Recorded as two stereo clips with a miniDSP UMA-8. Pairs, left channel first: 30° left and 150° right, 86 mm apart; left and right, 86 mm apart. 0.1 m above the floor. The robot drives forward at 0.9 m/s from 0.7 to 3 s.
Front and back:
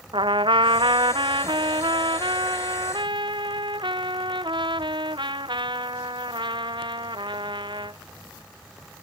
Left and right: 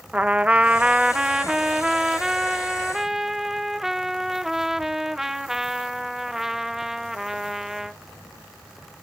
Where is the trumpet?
165° right; by 8.0 s 175° right.